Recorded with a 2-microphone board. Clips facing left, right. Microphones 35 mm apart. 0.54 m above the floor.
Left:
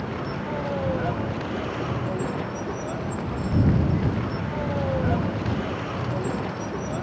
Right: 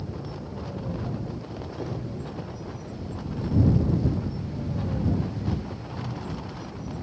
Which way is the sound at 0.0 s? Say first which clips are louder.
Left 7 dB; 80° left.